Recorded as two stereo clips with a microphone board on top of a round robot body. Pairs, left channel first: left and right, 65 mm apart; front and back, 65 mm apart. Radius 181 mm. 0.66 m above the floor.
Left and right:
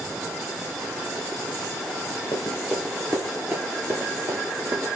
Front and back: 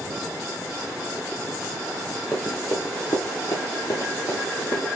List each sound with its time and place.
2.3 s running footsteps: 75° left, 0.7 m; by 5.0 s 40° right, 1.8 m